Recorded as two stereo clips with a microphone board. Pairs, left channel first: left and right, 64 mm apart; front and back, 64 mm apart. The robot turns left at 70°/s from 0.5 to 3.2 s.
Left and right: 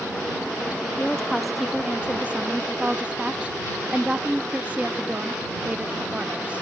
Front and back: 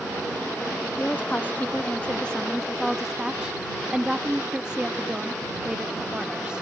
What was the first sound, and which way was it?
A woman speaking, 35° left.